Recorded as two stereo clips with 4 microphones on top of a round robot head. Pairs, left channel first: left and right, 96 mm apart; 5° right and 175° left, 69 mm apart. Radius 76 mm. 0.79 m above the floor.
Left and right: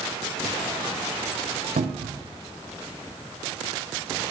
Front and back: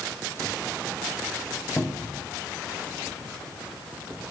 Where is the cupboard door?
75° right, 0.5 m.